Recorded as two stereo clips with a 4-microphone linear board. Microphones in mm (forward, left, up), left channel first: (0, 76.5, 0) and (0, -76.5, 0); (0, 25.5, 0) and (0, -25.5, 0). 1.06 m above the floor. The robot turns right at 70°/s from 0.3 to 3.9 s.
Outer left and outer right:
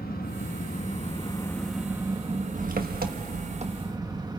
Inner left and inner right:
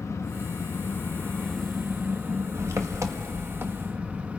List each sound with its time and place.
0.0 s an engine running: 80° left, 1.1 m; by 4.4 s 25° right, 1.1 m